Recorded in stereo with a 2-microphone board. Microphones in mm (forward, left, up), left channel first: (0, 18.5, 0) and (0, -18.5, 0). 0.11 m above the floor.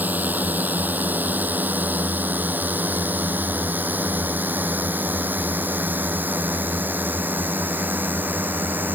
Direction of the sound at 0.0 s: 55° right (ahead or behind).